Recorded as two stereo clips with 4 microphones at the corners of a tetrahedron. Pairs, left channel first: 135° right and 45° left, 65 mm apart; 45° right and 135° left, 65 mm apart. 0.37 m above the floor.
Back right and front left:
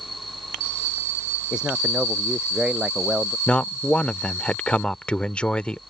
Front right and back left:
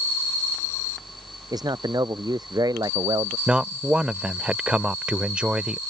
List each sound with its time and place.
1.5 s a man speaking: 120° left
3.5 s a man speaking: straight behind